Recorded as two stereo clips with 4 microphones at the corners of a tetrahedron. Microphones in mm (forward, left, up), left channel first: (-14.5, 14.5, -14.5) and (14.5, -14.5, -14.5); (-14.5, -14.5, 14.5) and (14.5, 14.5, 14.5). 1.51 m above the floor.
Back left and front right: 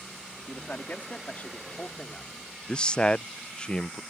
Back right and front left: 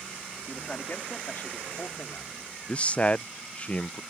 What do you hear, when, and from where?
0.5 s a man speaking: straight behind; by 2.3 s 165° right
2.7 s a man speaking: 170° right